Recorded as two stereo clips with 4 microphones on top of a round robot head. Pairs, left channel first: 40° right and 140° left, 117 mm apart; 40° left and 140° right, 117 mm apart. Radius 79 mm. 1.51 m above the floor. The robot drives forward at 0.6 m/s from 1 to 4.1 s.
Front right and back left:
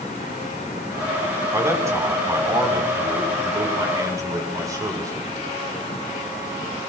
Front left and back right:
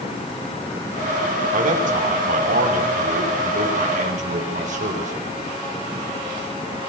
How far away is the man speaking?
About 6 m.